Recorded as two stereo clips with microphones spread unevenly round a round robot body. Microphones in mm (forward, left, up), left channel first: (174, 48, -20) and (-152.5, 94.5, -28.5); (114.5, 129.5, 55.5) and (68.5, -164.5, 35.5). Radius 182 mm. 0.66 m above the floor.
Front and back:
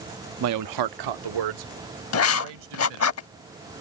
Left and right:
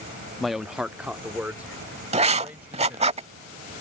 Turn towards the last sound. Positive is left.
turn(degrees=-35)